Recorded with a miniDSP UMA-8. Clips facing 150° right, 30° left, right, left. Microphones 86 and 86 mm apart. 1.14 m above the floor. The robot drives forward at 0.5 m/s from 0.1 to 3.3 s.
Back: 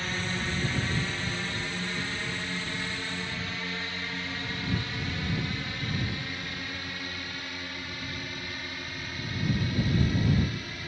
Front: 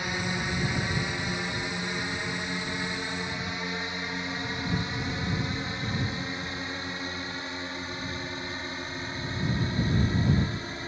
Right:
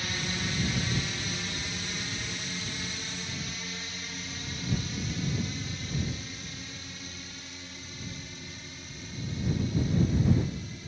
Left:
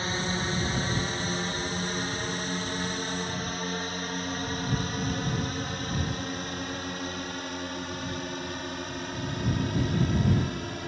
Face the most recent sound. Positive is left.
turn(degrees=95)